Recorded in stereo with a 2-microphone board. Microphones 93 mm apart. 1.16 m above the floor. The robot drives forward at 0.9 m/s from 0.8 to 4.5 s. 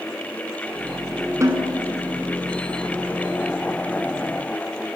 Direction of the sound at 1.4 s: 35° right (ahead or behind).